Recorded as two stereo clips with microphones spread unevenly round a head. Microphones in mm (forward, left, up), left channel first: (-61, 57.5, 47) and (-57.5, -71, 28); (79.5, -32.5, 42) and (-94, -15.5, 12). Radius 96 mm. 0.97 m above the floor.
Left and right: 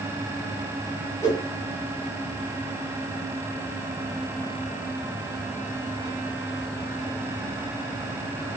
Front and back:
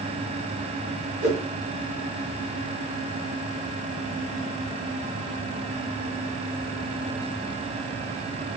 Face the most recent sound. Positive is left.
turn(degrees=150)